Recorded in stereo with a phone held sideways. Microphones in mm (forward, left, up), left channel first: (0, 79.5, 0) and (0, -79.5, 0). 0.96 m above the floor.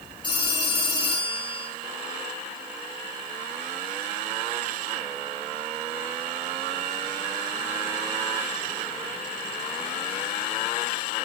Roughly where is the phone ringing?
Left.